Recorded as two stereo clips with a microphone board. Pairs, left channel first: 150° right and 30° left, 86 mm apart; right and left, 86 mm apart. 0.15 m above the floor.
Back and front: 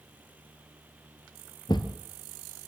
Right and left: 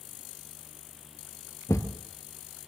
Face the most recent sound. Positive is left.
turn(degrees=-135)